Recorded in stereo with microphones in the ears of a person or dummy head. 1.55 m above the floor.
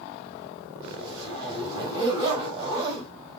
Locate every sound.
0.8 s a zipper: 25° right (ahead or behind), 4.5 m